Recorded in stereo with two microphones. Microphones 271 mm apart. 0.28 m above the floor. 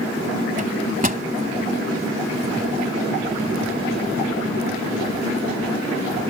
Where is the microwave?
30° right (ahead or behind).